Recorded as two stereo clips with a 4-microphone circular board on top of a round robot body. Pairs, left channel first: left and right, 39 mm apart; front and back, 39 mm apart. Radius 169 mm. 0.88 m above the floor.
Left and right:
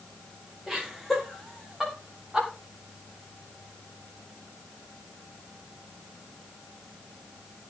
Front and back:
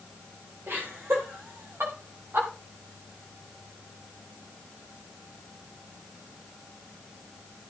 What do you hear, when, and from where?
0.7 s laughter: straight behind, 4.5 m; by 2.5 s 165° right, 3.5 m